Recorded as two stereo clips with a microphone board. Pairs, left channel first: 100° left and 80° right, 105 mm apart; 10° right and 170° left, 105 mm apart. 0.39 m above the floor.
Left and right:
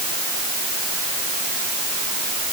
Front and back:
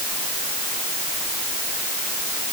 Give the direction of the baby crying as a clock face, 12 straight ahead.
I don't hear a baby crying.